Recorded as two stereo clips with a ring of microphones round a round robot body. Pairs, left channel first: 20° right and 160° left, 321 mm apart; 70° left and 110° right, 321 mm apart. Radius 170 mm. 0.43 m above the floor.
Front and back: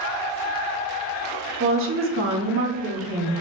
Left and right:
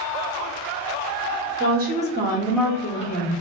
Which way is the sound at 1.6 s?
165° right.